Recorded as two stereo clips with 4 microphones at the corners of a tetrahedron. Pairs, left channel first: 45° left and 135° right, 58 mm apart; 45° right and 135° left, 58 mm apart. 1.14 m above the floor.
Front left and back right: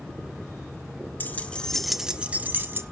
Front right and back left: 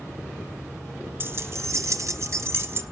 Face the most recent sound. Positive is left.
turn(degrees=180)